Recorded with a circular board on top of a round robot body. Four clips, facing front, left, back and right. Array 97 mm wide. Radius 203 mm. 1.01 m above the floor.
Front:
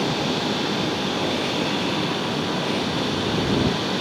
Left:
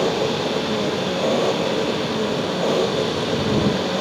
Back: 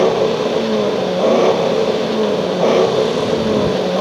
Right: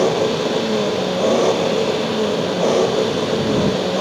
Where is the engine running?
170° right.